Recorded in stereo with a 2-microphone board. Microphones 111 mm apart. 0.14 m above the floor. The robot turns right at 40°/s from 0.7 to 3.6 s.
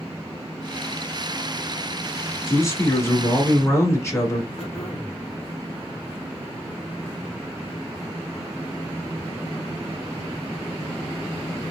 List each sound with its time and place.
2.5 s a man speaking: 25° left (ahead or behind), 1.4 m
4.6 s throat clearing: 55° left (ahead or behind), 2.5 m